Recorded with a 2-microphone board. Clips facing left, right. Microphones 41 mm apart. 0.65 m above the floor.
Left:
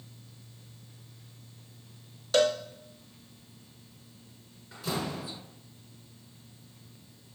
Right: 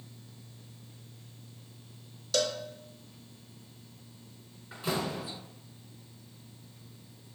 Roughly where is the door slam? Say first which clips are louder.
Right 1 dB; right.